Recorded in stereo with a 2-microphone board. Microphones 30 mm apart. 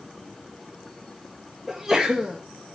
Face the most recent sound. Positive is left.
turn(degrees=-5)  # may be behind; listen again after turning